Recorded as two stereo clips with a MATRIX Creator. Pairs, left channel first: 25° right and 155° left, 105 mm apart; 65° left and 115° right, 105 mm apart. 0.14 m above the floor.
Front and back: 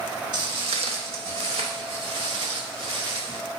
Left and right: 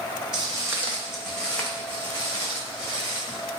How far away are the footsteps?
About 0.6 m.